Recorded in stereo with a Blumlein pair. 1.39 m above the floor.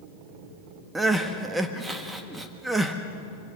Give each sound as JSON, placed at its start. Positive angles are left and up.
{"t": 0.9, "sound": "crying", "azimuth_deg": -10, "distance_m": 1.5}